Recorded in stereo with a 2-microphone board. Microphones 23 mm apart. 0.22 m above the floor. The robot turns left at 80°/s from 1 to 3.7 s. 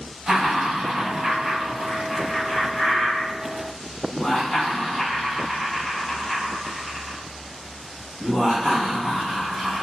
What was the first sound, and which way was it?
Laughter, 15° right (ahead or behind).